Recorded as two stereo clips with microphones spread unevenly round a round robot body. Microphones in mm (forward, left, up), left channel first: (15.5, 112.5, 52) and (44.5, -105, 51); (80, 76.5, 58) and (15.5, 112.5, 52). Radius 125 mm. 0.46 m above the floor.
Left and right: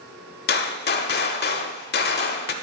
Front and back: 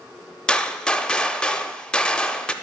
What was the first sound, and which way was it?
A gunshot, 50° left.